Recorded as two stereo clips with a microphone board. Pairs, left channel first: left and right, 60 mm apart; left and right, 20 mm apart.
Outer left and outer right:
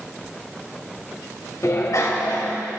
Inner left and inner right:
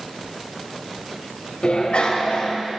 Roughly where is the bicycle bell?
Left.